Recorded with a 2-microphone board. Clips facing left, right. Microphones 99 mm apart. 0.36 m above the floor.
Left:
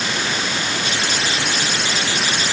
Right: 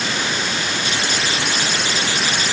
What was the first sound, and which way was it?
Only background noise.